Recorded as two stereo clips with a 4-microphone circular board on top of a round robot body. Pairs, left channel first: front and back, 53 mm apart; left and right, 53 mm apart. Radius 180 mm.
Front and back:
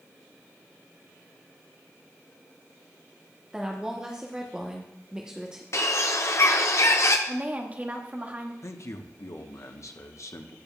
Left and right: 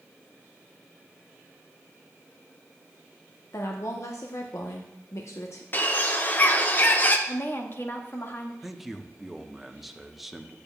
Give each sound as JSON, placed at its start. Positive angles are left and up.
{"t": 3.5, "sound": "a woman speaking", "azimuth_deg": 105, "distance_m": 1.2}
{"t": 5.7, "sound": "a bird", "azimuth_deg": 35, "distance_m": 0.8}
{"t": 7.3, "sound": "a woman speaking", "azimuth_deg": 125, "distance_m": 1.7}
{"t": 8.6, "sound": "a man speaking", "azimuth_deg": -5, "distance_m": 1.2}